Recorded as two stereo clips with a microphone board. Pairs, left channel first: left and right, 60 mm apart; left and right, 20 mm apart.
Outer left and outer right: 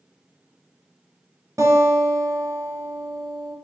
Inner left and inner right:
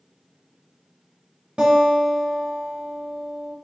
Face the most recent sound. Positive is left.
turn(degrees=-60)  # may be behind; listen again after turning